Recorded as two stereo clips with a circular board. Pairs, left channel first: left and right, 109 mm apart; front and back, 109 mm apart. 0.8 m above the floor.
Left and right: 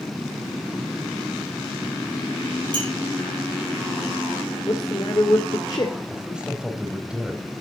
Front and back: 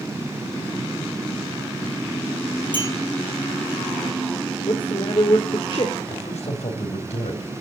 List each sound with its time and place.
2.7 s a clink: 135° right, 9 m
4.7 s a man speaking: 40° left, 2 m
6.1 s a man speaking: 10° right, 3.5 m